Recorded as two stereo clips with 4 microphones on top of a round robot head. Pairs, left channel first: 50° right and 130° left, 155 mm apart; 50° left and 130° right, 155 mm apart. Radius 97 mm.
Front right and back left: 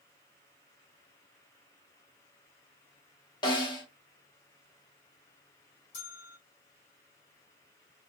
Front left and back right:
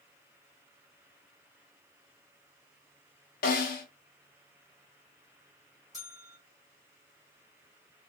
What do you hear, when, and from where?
3.4 s a snare drum: 15° left, 1.0 m
5.9 s a bell: 45° right, 1.7 m